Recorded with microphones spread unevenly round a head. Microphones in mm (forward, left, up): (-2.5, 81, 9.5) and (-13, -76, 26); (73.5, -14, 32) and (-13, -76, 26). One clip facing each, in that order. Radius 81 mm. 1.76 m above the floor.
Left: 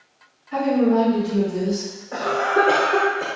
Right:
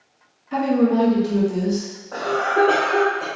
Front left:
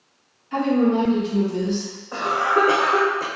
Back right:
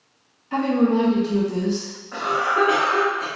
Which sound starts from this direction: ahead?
A cough, at 2.1 s.